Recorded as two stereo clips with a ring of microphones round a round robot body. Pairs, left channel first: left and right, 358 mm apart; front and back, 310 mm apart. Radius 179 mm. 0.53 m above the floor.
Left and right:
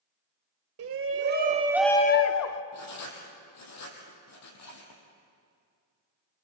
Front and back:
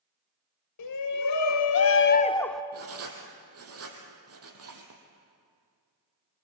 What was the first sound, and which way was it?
A shout, 40° right.